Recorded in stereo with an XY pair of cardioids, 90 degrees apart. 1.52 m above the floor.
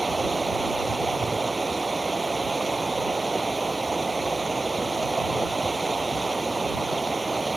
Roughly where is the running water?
Ahead.